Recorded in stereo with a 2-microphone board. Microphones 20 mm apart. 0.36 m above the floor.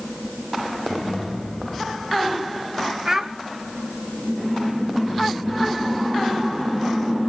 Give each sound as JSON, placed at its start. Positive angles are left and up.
{"t": 3.0, "sound": "a child speaking", "side_deg": -25, "distance_m": 1.0}